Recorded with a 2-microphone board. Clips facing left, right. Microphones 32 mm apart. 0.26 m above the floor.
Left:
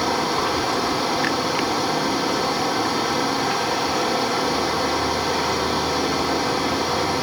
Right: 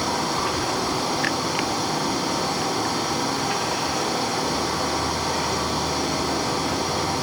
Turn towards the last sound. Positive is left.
turn(degrees=10)  # may be behind; listen again after turning